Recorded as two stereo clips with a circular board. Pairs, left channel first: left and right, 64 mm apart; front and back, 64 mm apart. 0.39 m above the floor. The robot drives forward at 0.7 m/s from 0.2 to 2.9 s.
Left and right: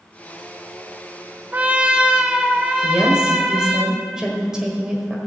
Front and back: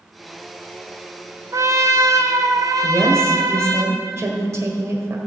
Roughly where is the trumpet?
Behind right.